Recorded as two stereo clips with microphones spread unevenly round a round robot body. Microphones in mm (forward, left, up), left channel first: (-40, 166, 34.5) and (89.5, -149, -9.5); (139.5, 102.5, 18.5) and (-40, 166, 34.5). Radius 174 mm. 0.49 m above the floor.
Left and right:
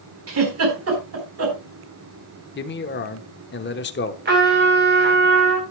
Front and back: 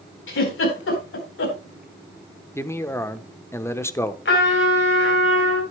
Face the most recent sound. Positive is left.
turn(degrees=-10)